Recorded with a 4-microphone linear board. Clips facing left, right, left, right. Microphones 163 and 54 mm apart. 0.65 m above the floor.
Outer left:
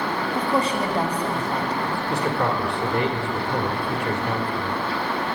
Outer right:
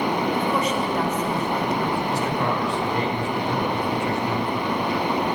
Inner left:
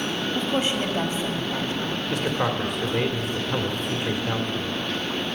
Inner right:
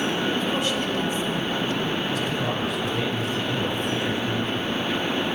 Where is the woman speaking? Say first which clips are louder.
Even, even; 30° left (ahead or behind), 1.5 m.